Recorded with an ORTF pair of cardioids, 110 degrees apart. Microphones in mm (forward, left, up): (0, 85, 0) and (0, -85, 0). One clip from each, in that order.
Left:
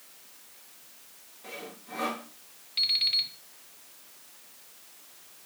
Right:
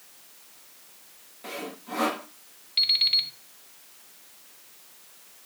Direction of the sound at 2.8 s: 15° right.